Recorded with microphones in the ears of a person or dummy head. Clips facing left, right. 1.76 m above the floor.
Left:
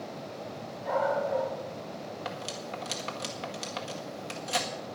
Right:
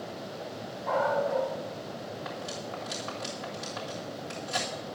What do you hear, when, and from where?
0.8 s a dog barking: 15° left (ahead or behind), 5 m
2.2 s cutlery clinking: 40° left (ahead or behind), 1.6 m